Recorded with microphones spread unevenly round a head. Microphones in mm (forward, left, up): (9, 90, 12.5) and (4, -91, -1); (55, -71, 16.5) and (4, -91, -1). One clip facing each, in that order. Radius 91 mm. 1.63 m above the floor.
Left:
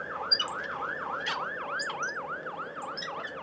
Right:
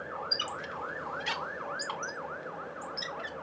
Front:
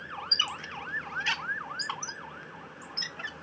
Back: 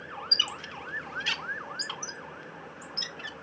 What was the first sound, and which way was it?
A squeak, 10° left.